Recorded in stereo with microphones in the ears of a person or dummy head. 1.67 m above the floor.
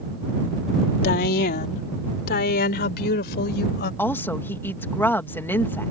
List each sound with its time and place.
1.0 s a woman speaking: 55° left (ahead or behind); by 3.9 s 60° left (ahead or behind)
4.0 s a woman speaking: 15° left (ahead or behind)